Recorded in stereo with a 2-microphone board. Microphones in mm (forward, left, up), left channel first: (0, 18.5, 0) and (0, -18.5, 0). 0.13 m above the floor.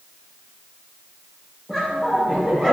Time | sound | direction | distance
1.7 | laughter | centre (ahead or behind) | 4 m